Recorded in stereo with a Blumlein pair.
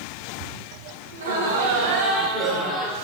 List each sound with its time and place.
1.1 s laughter: 70° right, 1.3 m; by 3.0 s 5° left, 1.1 m